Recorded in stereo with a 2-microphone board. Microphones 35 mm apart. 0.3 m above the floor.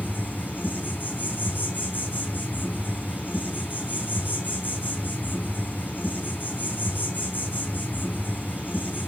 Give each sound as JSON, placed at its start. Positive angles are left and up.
{"t": 0.0, "sound": "an insect", "side_deg": 60, "distance_m": 3.5}